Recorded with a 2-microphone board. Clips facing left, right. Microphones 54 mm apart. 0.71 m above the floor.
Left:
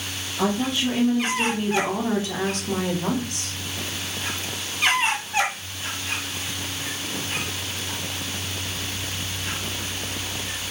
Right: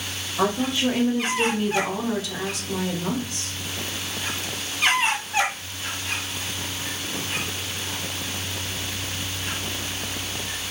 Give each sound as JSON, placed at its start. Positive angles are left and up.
{"t": 0.4, "sound": "a woman speaking", "side_deg": -45, "distance_m": 1.0}